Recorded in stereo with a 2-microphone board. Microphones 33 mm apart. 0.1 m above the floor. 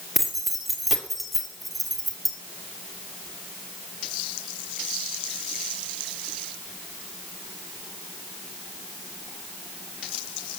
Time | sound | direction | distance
0.1 | keys jangling | 5° right (ahead or behind) | 2.0 m